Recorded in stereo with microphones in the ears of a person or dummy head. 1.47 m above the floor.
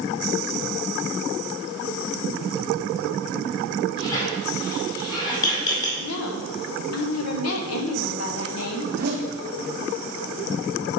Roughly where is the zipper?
Right.